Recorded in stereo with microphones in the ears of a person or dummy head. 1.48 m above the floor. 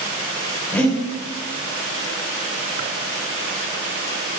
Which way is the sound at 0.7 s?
10° left (ahead or behind).